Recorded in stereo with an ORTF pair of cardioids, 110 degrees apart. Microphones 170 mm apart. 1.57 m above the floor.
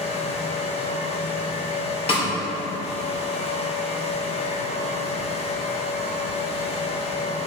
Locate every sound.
0.0 s a fan: 35° left, 1.4 m
2.1 s a snare drum: 35° left, 3 m